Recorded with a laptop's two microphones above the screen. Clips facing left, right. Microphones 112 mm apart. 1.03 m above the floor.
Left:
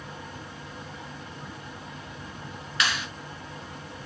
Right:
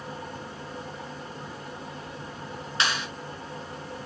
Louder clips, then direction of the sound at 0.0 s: Right 3 dB; 35° right (ahead or behind).